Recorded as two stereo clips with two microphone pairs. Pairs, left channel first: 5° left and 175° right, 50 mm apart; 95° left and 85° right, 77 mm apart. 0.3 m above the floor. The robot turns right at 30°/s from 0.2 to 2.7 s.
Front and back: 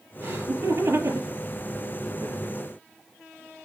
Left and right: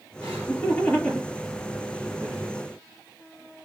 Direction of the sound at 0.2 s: 140° left.